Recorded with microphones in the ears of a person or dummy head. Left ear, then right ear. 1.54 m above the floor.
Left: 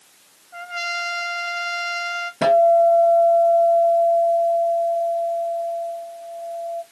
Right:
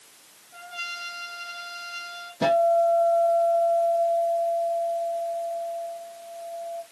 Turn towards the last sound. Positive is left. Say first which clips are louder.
# left 6 dB
turn(degrees=35)  # may be behind; listen again after turning